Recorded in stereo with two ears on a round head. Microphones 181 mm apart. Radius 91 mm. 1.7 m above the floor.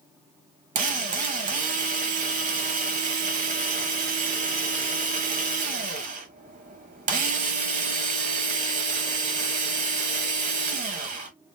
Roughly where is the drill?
Right.